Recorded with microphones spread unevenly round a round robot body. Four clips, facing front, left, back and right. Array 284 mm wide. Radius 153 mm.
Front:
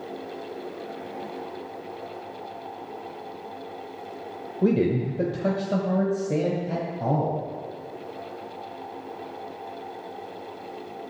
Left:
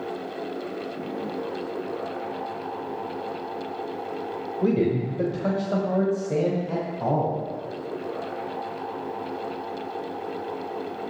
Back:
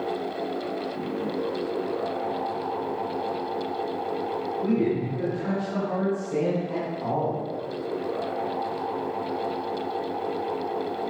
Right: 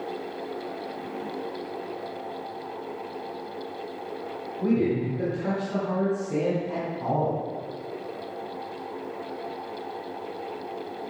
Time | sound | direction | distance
4.6 | a man speaking | 10° left | 2 m